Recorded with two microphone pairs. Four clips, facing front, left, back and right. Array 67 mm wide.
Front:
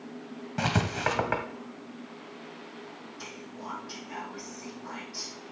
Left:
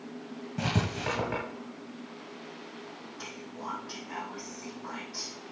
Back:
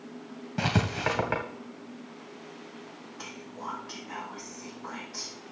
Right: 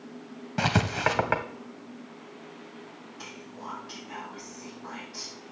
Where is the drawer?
I don't hear a drawer.